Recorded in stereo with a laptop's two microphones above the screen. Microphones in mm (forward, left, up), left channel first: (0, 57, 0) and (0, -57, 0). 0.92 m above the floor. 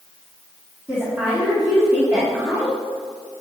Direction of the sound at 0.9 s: 20° right (ahead or behind).